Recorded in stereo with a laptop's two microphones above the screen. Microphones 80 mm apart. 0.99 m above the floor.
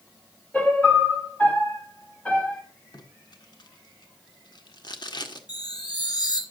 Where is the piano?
20° left (ahead or behind), 2.5 m.